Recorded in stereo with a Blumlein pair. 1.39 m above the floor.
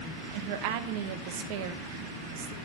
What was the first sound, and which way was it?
A woman speaking, 45° right.